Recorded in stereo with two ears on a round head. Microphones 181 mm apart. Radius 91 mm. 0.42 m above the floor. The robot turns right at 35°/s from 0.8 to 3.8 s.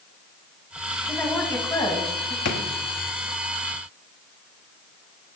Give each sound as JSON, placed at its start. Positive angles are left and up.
{"t": 1.1, "sound": "a woman speaking", "azimuth_deg": -5, "distance_m": 2.5}
{"t": 2.5, "sound": "a drawer", "side_deg": 65, "distance_m": 1.4}